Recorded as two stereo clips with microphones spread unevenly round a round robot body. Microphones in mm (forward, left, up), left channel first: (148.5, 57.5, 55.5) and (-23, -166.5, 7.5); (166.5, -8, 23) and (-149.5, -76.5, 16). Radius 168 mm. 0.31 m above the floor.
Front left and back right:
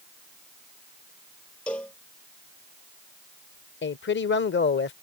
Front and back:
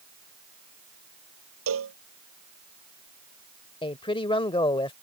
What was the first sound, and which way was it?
A cowbell, 140° left.